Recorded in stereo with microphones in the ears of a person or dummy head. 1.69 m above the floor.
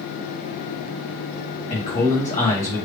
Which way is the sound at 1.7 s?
35° left (ahead or behind).